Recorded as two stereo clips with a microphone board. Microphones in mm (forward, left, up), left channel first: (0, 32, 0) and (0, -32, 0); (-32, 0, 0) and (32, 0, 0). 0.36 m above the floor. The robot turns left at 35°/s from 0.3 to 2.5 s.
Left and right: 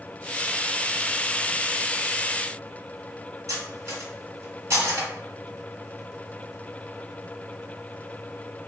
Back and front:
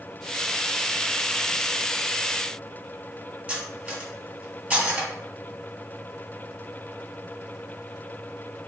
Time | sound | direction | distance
3.5 | cutlery clinking | 65° right | 1.2 m